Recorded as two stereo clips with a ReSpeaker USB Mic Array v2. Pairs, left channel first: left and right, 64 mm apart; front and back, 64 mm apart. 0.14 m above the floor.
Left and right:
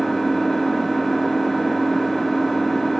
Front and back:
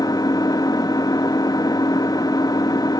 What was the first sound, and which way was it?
An engine running, 5° left.